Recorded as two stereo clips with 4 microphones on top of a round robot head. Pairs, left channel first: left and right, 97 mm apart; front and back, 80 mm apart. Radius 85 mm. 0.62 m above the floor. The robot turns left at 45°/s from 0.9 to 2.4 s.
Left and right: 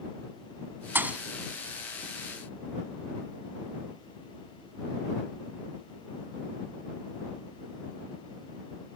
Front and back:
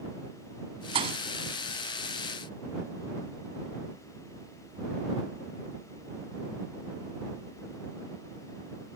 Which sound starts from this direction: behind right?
A thud, at 0.9 s.